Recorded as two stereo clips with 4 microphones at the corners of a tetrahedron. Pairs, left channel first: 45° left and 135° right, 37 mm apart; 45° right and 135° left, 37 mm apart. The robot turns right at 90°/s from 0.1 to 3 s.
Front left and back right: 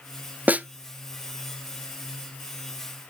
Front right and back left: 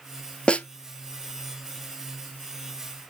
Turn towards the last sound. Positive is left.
turn(degrees=120)